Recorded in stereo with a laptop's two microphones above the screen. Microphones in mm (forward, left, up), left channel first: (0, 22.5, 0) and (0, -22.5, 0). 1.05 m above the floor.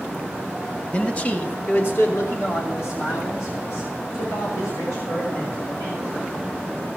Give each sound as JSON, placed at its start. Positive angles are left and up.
{"t": 0.9, "sound": "a man speaking", "side_deg": 25, "distance_m": 1.7}